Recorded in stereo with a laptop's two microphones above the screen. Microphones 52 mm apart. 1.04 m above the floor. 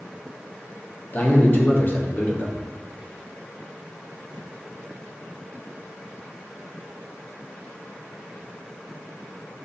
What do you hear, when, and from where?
1.1 s a man speaking: 40° left (ahead or behind), 0.8 m